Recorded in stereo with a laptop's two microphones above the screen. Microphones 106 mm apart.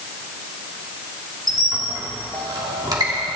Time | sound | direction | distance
1.5 | a squeak | 40° right (ahead or behind) | 1.3 m